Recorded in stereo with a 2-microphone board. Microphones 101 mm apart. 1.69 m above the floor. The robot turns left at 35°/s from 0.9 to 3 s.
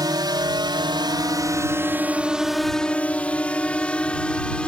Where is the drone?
40° right (ahead or behind); by 4.7 s 10° left (ahead or behind).